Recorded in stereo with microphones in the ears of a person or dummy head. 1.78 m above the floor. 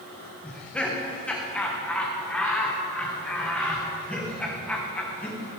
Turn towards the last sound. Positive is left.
turn(degrees=0)  # may be behind; listen again after turning